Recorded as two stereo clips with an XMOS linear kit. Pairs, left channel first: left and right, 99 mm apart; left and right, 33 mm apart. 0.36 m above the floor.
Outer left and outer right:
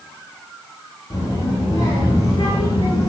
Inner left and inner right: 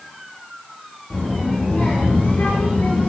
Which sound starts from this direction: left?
A child speaking, at 1.1 s.